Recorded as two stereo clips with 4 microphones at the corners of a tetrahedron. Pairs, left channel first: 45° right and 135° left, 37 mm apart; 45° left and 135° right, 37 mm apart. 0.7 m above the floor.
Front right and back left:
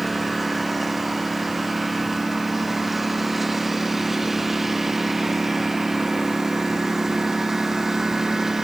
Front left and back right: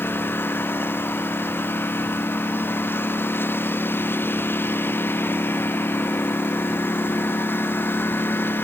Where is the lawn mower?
45° left; by 8.6 s 55° left.